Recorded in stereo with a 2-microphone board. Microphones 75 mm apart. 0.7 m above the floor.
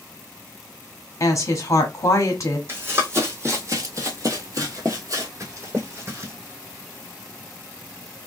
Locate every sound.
1.2 s a woman speaking: 45° left (ahead or behind), 1.1 m
2.7 s running footsteps: 30° right (ahead or behind), 1.4 m; by 6.3 s 35° right (ahead or behind), 1.4 m